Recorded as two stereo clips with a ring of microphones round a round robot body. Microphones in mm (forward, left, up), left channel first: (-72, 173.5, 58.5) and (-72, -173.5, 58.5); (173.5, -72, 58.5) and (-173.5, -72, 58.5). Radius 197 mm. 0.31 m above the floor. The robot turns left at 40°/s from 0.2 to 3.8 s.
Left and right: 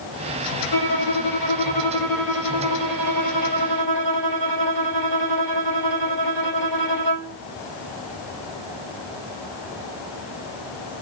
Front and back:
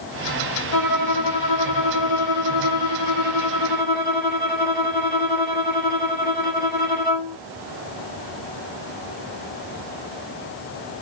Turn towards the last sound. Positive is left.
turn(degrees=-65)